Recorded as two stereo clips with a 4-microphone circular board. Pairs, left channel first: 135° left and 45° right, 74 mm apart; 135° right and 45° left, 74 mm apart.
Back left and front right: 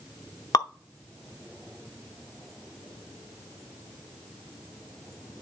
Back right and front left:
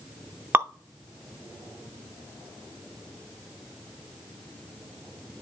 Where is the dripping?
105° left, 0.6 m.